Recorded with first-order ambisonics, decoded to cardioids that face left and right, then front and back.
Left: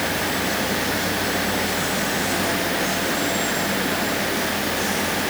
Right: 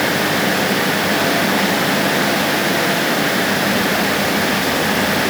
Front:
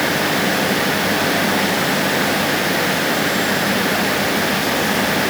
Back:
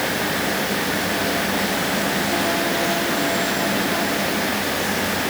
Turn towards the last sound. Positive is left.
No sound to turn to.